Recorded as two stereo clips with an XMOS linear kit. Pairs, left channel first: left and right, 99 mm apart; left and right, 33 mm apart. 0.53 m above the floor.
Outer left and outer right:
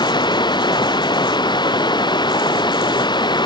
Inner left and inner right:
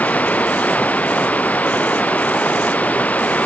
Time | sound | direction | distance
0.0 | running water | 55° left (ahead or behind) | ?